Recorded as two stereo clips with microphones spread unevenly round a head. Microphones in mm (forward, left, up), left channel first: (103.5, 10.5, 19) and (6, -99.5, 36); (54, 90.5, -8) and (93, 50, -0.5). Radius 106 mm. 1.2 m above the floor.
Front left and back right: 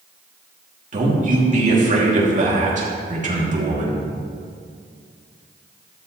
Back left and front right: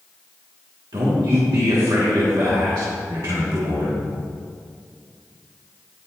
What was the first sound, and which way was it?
A man speaking, 95° right.